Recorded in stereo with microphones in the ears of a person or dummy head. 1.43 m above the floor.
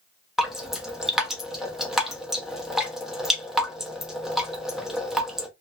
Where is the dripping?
5° right (ahead or behind), 0.8 m.